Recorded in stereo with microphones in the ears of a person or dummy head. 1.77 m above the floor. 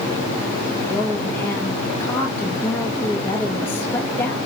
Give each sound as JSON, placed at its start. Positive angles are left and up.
{"t": 0.9, "sound": "a woman speaking", "side_deg": 15, "distance_m": 3.0}